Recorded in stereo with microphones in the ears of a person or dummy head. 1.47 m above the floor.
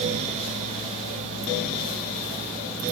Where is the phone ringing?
I don't hear a phone ringing.